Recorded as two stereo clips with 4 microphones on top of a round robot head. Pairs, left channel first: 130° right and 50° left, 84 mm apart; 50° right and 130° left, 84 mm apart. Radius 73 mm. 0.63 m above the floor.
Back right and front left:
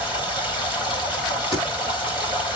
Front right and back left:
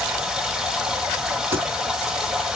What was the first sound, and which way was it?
Running water, 145° right.